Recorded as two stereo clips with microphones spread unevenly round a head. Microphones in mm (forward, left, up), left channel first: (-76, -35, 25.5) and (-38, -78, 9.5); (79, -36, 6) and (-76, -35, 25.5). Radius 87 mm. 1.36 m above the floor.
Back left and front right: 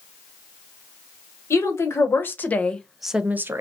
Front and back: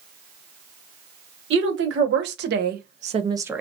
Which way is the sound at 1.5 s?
170° left.